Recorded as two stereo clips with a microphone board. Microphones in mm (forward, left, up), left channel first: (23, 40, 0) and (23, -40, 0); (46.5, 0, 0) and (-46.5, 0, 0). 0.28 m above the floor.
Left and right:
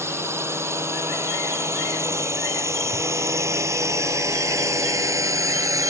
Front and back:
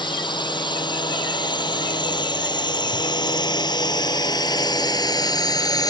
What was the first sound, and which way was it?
A drone, 35° right.